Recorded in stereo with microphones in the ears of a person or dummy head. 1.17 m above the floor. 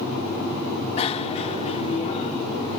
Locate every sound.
1.0 s a bicycle bell: 30° left (ahead or behind)